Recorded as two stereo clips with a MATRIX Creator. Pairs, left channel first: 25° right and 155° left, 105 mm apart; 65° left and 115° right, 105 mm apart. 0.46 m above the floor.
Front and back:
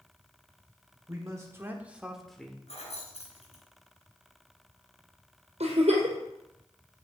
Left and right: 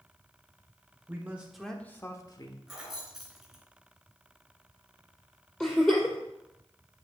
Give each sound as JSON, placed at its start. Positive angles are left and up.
{"t": 1.1, "sound": "a man speaking", "azimuth_deg": -170, "distance_m": 1.4}
{"t": 2.7, "sound": "keys jangling", "azimuth_deg": -25, "distance_m": 3.5}
{"t": 5.6, "sound": "a giggle", "azimuth_deg": 150, "distance_m": 2.5}